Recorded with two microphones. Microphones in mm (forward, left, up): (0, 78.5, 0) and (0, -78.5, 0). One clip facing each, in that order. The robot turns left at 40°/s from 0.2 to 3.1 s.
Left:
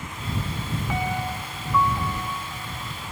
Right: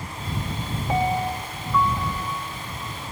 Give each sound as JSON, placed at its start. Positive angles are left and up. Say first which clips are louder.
{"t": 0.9, "sound": "a piano", "louder": "right 7 dB", "azimuth_deg": -145}